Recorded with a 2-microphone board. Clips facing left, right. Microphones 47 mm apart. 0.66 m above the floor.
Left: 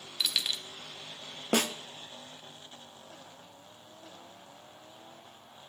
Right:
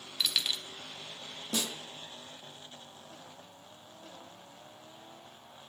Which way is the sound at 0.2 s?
5° left (ahead or behind).